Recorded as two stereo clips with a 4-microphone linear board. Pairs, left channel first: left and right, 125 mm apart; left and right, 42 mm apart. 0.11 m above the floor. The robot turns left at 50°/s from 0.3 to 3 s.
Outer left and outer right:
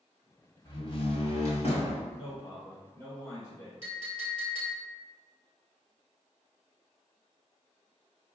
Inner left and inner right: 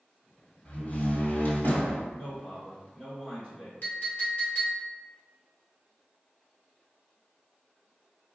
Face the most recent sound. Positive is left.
turn(degrees=50)  # may be behind; listen again after turning